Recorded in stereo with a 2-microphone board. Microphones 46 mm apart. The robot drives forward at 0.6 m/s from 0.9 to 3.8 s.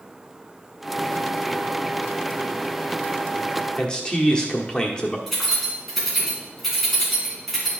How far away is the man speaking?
About 1.1 m.